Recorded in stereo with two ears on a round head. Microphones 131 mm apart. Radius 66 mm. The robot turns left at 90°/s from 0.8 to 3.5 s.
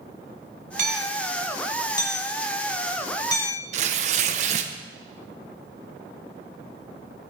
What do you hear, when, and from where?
0.8 s hammering: 60° right (ahead or behind), 2.5 m; by 3.6 s 15° left (ahead or behind), 2.5 m
3.7 s tearing paper: 50° right (ahead or behind), 1.4 m